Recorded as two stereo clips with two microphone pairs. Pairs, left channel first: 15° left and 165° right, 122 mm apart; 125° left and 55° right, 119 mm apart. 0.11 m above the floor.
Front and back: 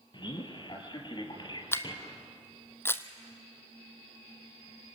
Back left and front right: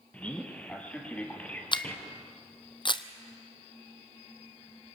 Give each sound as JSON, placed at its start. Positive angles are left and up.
{"t": 0.1, "sound": "a man speaking", "azimuth_deg": 50, "distance_m": 3.0}
{"t": 1.7, "sound": "a camera shutter", "azimuth_deg": 80, "distance_m": 0.9}